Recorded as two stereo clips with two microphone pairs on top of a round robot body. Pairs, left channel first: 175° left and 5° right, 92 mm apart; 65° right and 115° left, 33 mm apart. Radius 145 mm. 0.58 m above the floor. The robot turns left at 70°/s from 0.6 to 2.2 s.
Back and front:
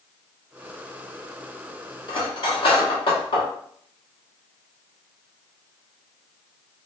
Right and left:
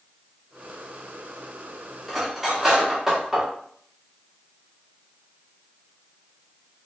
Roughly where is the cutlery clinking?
Behind right.